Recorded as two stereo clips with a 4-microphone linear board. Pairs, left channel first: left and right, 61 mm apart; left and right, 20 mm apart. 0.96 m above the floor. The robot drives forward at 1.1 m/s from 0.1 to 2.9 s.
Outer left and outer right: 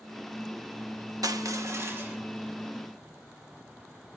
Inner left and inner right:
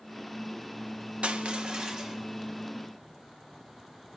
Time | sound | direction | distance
1.2 | crushing | 80° right | 0.7 m